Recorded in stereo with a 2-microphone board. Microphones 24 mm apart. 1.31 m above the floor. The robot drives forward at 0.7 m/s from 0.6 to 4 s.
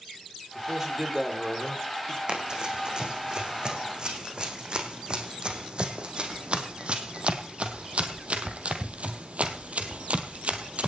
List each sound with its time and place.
0.6 s a man speaking: 20° right (ahead or behind), 5.5 m; by 2.2 s 30° right (ahead or behind), 4.5 m
2.3 s running footsteps: 40° right (ahead or behind), 5 m; by 10.9 s 60° right (ahead or behind), 2.5 m